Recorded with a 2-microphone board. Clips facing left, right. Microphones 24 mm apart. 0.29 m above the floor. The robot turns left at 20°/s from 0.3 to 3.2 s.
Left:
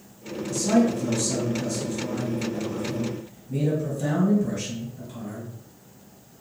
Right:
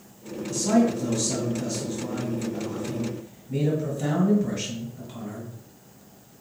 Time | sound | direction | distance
0.5 | a man speaking | 10° right (ahead or behind) | 1.6 m